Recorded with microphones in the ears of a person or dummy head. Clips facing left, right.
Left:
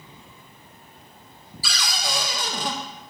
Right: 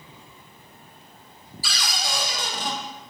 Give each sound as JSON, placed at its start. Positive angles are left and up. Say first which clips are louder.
{"t": 1.6, "sound": "a cupboard door", "louder": "left 1 dB", "side_deg": 65, "distance_m": 0.6}